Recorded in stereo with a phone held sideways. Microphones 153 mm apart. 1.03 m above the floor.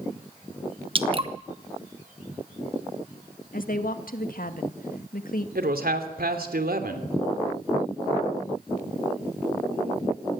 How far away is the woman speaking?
About 1.8 m.